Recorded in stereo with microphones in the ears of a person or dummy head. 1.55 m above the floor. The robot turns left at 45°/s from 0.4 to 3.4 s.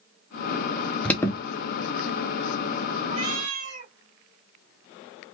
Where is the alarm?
5° left (ahead or behind), 0.6 m; by 1.4 s 20° left (ahead or behind), 0.6 m.